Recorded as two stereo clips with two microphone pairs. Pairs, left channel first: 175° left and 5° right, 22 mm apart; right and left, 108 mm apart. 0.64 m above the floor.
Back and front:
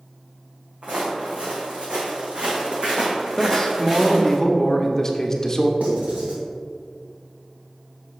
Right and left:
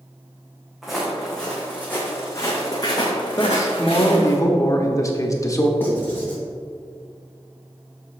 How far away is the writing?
About 2 m.